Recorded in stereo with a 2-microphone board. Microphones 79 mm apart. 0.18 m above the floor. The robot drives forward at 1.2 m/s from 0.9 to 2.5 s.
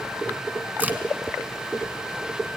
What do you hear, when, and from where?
0.8 s a crack: 20° right (ahead or behind), 1.6 m